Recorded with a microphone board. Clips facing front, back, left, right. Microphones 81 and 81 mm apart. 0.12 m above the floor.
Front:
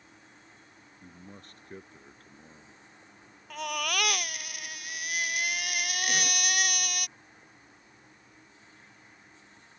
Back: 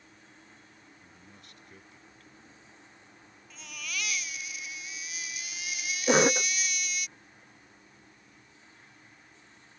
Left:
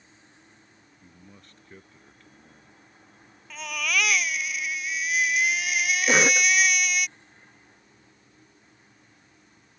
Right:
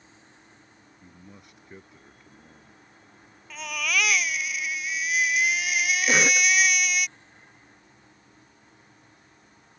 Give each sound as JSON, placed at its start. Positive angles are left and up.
{"t": 1.0, "sound": "a man speaking", "azimuth_deg": -15}
{"t": 3.5, "sound": "a baby crying", "azimuth_deg": 0}
{"t": 6.1, "sound": "a cough", "azimuth_deg": 160}